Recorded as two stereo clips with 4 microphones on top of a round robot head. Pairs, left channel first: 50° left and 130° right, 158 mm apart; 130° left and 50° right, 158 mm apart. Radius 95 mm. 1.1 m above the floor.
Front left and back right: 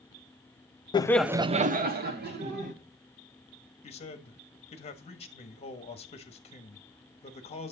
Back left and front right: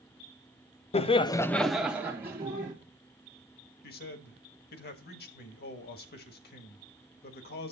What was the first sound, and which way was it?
Laughter, 100° left.